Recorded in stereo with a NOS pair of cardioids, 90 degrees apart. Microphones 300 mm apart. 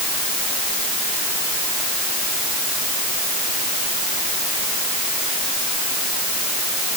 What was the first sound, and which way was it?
Only background noise.